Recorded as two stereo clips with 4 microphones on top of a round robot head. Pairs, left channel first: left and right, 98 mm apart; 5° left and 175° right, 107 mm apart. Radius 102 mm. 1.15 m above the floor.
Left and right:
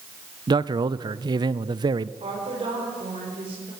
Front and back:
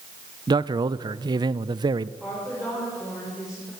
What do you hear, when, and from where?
0.5 s a man speaking: 130° right, 0.6 m
2.2 s a woman speaking: 90° right, 6 m